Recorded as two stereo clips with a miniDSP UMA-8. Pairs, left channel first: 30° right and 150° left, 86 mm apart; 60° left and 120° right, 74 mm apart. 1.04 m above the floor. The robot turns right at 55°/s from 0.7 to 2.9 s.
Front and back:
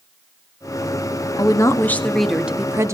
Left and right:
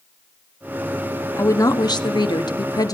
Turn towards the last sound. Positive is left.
turn(degrees=95)